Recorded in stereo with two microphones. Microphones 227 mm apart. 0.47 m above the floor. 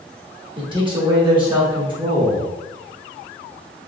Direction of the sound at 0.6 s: 20° right (ahead or behind).